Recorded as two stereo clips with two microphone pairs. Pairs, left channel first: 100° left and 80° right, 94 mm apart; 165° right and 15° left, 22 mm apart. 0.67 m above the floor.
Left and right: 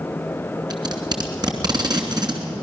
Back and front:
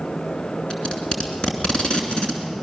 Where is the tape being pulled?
120° right, 2.5 m.